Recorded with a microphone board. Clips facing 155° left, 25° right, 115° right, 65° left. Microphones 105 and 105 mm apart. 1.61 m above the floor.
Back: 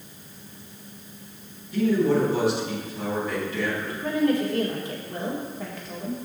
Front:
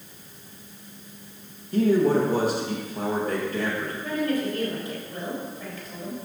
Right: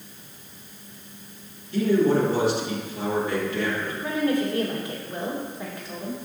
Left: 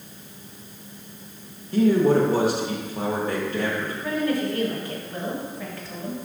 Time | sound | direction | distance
1.7 | a man speaking | 25° left | 1.8 m
4.0 | a woman speaking | straight behind | 2.0 m